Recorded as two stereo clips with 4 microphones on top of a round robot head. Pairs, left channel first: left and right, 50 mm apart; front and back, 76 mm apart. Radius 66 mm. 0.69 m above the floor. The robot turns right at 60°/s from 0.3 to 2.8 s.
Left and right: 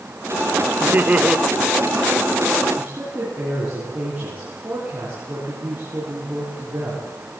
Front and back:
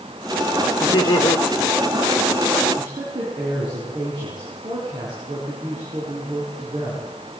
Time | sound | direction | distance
0.8 | laughter | 45° right | 2 m
2.8 | a woman speaking | 155° right | 7 m